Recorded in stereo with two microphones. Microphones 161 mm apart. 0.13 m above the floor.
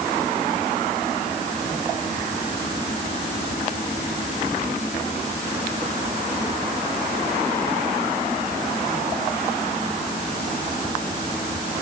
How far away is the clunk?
No clunk in this recording.